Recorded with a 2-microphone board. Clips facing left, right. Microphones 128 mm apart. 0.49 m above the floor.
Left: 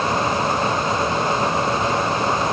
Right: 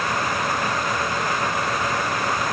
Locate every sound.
Only background noise.